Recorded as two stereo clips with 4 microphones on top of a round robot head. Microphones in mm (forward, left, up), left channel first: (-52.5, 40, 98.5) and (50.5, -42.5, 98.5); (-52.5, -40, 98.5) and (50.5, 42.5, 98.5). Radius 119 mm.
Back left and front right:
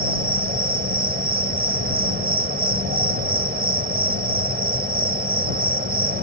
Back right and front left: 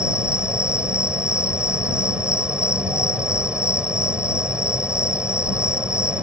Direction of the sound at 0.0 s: 40° right.